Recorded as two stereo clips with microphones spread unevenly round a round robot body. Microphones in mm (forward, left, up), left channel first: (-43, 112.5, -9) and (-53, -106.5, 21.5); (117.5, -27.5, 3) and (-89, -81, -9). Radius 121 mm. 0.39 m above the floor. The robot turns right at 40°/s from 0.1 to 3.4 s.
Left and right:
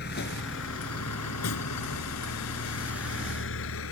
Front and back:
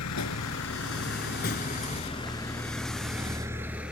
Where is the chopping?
No chopping in this recording.